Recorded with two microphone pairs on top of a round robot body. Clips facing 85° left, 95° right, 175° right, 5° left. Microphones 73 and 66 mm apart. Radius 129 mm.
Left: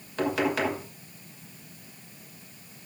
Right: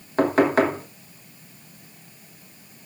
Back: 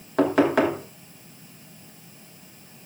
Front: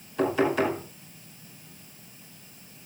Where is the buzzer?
I don't hear a buzzer.